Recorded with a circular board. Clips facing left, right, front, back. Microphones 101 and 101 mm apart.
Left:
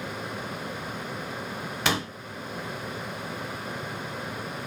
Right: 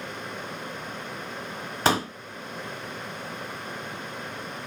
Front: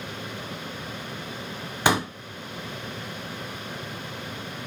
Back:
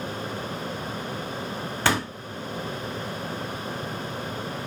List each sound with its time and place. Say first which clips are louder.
1.9 s a pop: right 5 dB, front 2 dB; 65° right, 0.6 m